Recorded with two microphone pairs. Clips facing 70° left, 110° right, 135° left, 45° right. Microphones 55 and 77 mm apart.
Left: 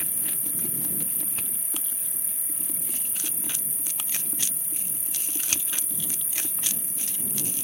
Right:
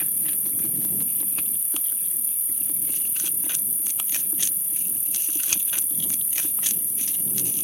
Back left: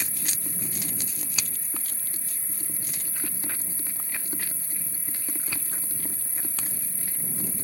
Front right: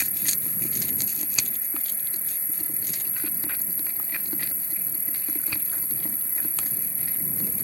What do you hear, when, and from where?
0.0 s an insect: 25° left